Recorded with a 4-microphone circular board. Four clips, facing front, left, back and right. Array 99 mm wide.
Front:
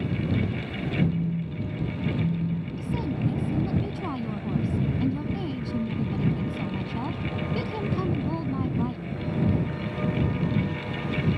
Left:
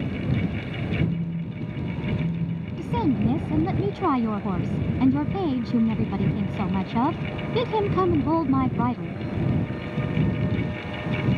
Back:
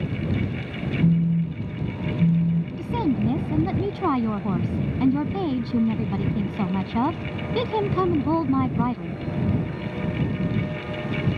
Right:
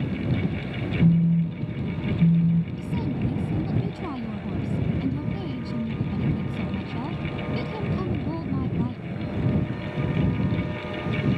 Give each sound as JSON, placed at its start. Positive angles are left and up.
{"t": 1.0, "sound": "a phone buzzing", "azimuth_deg": -125}
{"t": 2.8, "sound": "a woman speaking", "azimuth_deg": 130}